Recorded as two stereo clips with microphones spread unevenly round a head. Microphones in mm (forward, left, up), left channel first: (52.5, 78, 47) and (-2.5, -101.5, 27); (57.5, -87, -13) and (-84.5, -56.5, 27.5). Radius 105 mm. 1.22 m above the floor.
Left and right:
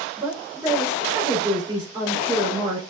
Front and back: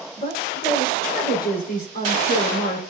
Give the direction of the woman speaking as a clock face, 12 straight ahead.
1 o'clock.